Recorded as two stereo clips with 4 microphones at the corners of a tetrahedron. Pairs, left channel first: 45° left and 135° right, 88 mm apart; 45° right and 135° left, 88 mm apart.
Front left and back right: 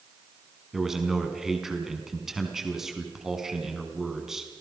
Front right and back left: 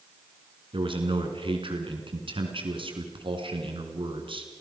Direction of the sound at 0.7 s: 140° left.